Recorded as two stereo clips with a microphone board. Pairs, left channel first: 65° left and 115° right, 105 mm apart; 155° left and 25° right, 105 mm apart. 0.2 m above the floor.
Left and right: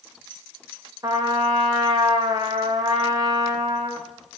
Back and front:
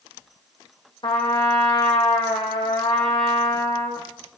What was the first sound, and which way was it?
A trumpet, 165° right.